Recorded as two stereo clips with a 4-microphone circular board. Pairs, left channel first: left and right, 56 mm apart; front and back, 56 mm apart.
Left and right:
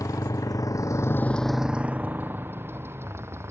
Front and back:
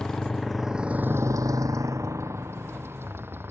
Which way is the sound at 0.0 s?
80° left.